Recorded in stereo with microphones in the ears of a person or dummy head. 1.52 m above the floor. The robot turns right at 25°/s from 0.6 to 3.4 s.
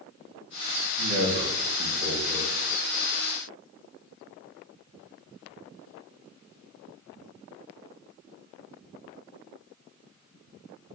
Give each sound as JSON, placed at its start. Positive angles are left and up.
{"t": 1.0, "sound": "a man speaking", "azimuth_deg": -135, "distance_m": 4.0}